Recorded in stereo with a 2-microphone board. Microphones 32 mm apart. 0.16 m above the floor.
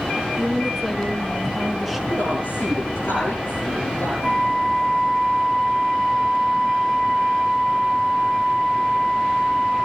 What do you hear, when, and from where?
0.2 s a woman speaking: centre (ahead or behind), 1.6 m
2.1 s a woman speaking: 80° left, 8 m
4.2 s a flute: 50° left (ahead or behind), 4.5 m